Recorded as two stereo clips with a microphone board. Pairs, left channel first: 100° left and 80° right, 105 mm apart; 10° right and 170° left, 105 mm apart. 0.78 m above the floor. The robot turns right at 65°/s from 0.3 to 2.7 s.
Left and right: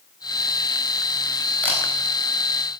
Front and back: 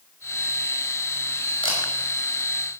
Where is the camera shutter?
25° left, 5.5 m; by 1.8 s 35° left, 5.5 m.